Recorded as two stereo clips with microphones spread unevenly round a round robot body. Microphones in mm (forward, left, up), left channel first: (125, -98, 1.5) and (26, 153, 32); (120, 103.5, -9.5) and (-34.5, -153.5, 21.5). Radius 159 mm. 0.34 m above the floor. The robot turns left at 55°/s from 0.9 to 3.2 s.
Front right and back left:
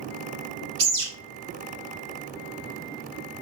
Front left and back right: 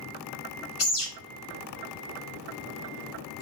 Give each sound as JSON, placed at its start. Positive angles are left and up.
{"t": 0.8, "sound": "a bird", "azimuth_deg": 75, "distance_m": 1.2}